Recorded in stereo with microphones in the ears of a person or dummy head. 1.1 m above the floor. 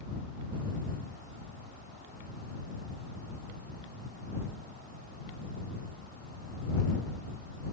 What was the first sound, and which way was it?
Only background noise.